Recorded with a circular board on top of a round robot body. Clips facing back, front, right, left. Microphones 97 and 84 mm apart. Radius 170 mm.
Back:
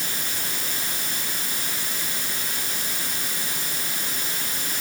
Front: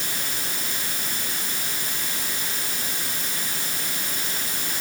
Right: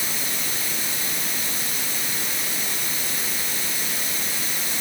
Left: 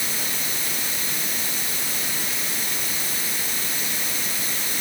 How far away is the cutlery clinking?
No cutlery clinking in this recording.